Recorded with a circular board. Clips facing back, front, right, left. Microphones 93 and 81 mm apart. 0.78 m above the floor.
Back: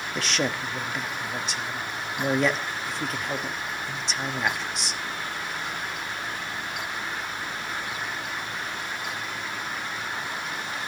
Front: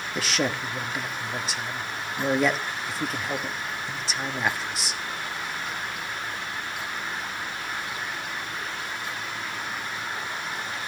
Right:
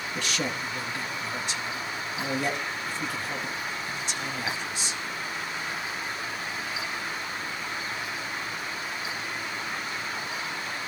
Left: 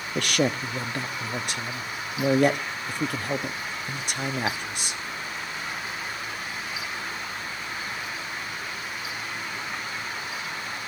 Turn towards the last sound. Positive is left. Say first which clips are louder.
# front 1 dB, left 7 dB
turn(degrees=90)